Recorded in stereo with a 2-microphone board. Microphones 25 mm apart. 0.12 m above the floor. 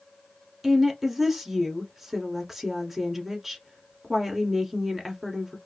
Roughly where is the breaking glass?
No breaking glass in this recording.